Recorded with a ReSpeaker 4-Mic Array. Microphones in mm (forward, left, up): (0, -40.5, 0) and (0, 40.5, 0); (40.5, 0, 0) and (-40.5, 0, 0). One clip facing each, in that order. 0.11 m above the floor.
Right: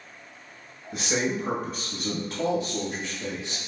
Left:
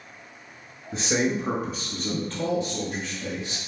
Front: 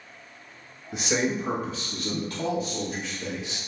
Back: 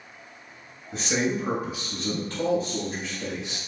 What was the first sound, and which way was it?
A man speaking, 65° left.